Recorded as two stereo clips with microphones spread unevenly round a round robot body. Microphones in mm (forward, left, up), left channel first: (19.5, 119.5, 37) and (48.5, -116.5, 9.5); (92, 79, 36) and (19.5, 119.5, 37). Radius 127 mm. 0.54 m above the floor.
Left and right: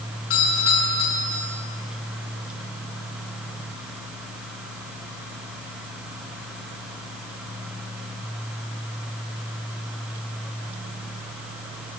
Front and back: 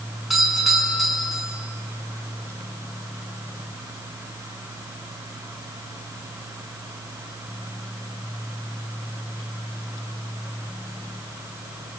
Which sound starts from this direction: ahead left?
A doorbell, at 0.3 s.